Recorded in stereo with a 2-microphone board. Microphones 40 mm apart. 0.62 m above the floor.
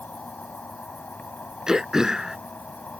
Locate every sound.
0.0 s an insect: 40° left (ahead or behind)
1.7 s throat clearing: 15° right (ahead or behind)